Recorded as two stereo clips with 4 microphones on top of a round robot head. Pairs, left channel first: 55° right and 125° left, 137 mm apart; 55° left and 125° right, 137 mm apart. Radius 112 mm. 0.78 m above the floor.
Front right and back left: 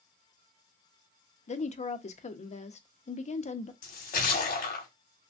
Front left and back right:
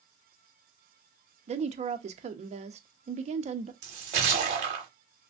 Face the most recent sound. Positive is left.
turn(degrees=-85)